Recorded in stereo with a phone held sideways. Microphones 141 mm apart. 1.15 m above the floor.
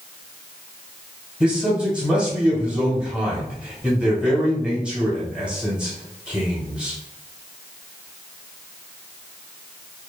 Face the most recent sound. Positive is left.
turn(degrees=-5)  # may be behind; listen again after turning